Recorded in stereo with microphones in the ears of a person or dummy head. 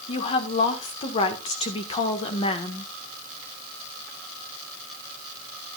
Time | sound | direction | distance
0.1 | a woman speaking | 40° left (ahead or behind) | 1.6 m